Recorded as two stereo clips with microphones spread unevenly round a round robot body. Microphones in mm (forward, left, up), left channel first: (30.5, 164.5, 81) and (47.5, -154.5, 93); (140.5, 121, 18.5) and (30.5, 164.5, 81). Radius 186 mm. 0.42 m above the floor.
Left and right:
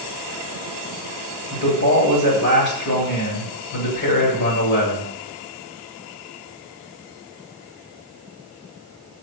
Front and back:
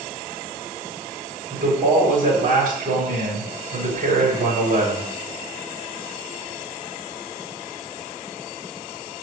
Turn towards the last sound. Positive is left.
turn(degrees=135)